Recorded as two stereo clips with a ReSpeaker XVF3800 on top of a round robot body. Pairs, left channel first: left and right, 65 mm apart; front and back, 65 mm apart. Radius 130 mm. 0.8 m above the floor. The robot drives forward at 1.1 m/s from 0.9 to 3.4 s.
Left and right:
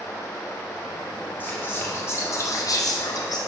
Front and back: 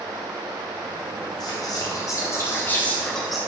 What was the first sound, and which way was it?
Whispering, 30° left.